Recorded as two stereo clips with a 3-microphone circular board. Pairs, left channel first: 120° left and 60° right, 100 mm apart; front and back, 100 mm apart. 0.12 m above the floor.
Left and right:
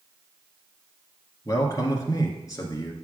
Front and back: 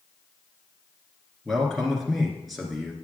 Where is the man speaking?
90° left, 1.6 m.